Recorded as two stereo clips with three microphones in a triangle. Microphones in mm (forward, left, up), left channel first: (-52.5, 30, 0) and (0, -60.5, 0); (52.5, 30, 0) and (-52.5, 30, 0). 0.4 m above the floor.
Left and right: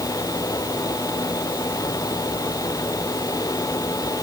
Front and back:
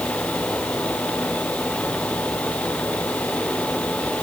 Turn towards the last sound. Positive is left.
No sound to turn to.